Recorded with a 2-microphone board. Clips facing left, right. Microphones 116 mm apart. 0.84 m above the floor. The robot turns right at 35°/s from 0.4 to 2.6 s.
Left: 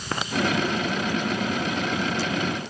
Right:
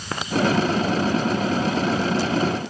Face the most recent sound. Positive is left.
No sound to turn to.